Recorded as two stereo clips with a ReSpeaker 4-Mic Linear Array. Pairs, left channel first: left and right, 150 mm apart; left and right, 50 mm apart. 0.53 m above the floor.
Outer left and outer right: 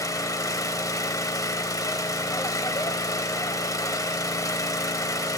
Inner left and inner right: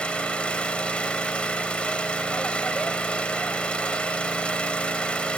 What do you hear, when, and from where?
0.0 s an engine running: 20° left (ahead or behind), 0.8 m